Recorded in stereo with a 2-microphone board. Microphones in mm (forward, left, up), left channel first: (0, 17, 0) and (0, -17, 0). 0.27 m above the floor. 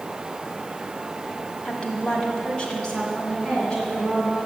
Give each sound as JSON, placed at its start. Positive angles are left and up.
{"t": 1.6, "sound": "a woman speaking", "side_deg": 30, "distance_m": 1.4}